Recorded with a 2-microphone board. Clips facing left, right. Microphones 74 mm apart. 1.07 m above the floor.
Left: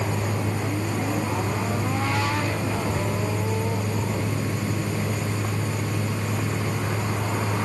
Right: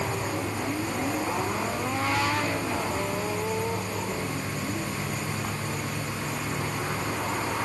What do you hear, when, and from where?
0.0 s a vehicle: 65° left (ahead or behind); by 7.7 s 90° left